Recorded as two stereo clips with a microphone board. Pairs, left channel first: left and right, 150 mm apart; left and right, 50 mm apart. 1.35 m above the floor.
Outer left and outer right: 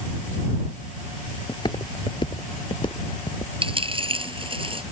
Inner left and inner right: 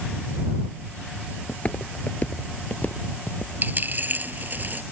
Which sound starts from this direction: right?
A dropped coin, at 3.6 s.